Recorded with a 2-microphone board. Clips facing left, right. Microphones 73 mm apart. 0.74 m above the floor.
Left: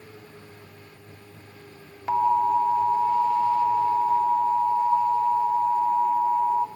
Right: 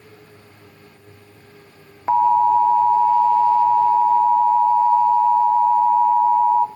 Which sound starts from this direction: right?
An alarm, at 2.1 s.